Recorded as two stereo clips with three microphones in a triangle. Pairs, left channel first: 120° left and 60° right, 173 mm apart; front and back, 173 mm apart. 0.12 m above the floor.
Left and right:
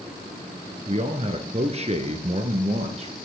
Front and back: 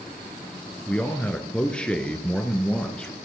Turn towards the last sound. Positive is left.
turn(degrees=-80)